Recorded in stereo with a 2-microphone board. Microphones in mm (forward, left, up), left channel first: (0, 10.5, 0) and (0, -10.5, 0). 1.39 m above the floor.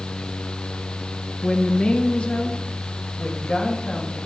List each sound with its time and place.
1.4 s a woman speaking: 45° left (ahead or behind), 1.0 m; by 4.2 s 75° left (ahead or behind), 2.5 m